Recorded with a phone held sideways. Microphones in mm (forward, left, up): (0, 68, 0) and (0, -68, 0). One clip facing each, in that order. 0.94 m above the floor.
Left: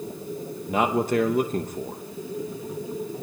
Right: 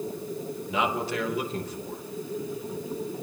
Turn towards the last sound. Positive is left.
turn(degrees=45)  # may be behind; listen again after turning